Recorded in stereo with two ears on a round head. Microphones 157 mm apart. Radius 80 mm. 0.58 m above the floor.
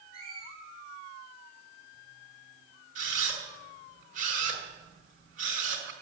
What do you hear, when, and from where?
0.1 s a squeak: 50° left (ahead or behind), 3 m
3.0 s a camera shutter: 50° right (ahead or behind), 4 m